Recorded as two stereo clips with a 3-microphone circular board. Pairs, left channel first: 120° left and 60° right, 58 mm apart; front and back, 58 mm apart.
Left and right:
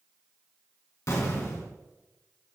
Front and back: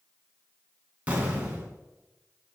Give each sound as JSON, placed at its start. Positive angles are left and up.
{"t": 1.1, "sound": "an explosion", "azimuth_deg": 115, "distance_m": 2.5}